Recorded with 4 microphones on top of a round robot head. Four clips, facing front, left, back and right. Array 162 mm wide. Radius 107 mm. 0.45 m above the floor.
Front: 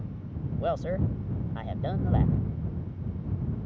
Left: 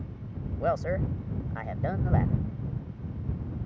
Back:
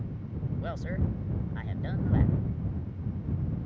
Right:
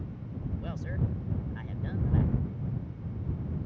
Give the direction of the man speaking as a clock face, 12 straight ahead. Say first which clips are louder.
Left 12 dB, front 8 dB; 10 o'clock.